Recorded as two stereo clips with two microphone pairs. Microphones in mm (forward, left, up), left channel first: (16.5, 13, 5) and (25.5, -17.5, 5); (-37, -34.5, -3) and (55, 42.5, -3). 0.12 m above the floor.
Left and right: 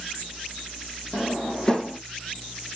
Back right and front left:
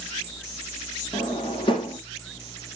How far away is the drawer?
About 3 m.